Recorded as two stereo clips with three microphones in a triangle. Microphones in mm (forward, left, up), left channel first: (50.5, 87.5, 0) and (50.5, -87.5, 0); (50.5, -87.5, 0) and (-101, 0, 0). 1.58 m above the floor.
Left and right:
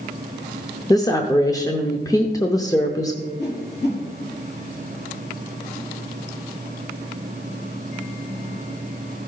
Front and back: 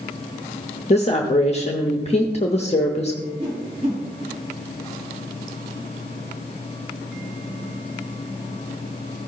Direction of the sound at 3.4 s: 95° left.